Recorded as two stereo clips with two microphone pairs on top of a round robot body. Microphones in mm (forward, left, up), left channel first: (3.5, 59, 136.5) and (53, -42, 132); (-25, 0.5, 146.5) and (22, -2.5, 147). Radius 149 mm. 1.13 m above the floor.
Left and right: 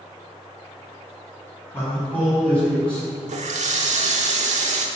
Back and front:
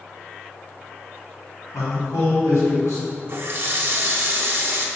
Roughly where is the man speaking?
Behind.